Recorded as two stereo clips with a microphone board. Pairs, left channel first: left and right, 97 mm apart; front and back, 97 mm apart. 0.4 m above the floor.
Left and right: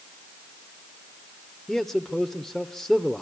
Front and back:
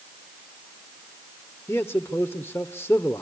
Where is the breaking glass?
I don't hear breaking glass.